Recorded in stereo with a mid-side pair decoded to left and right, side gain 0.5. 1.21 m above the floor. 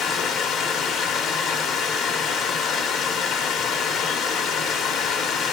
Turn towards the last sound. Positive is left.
turn(degrees=65)